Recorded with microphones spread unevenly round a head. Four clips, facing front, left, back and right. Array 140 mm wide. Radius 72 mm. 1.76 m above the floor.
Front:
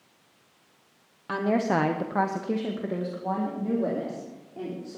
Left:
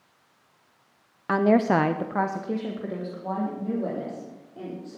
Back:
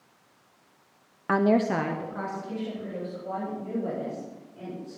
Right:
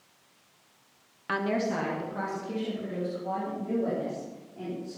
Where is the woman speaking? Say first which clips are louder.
Left 8 dB, back 2 dB; 150° left, 0.8 m; by 5.0 s 15° left, 5 m.